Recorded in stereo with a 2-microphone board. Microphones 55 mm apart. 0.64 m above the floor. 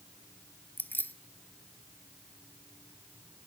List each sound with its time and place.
0.8 s keys jangling: 35° left (ahead or behind), 0.7 m